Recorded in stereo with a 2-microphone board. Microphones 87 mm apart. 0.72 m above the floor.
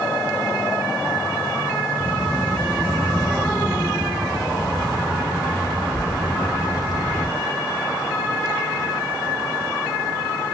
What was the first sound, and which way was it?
A child speaking, 15° right (ahead or behind).